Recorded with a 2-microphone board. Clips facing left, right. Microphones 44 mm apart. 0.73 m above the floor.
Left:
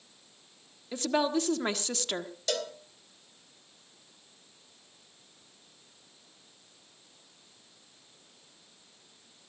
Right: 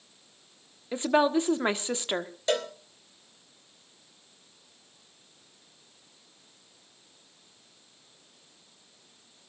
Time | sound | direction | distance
0.9 | a woman speaking | 20° right (ahead or behind) | 1.2 m
2.5 | a cowbell | 30° right (ahead or behind) | 2 m